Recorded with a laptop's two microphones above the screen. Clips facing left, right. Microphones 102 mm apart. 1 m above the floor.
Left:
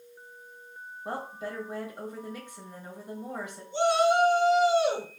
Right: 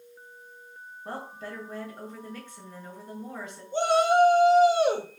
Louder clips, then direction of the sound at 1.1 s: Left 2 dB; 15° left (ahead or behind).